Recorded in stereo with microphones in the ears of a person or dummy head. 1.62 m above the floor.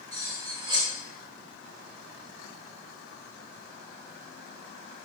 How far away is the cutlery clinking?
About 1.6 m.